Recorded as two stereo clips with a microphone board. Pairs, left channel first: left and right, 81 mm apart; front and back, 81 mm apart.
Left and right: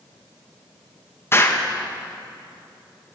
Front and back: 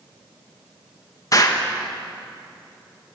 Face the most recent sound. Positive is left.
turn(degrees=35)